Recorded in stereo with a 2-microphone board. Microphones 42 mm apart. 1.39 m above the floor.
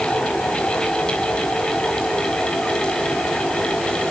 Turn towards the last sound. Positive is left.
No sound to turn to.